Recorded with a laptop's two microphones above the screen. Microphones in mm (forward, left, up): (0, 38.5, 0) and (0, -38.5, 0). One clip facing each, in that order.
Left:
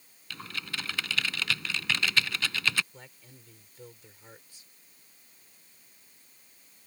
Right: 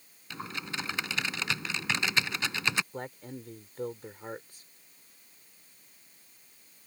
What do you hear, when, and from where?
0.3 s typing on a keyboard: 20° right (ahead or behind)
2.9 s a man speaking: 50° right (ahead or behind)